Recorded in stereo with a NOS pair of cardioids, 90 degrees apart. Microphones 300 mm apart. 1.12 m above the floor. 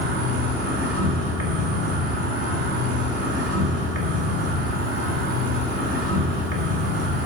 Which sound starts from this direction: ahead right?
An insect, at 0.0 s.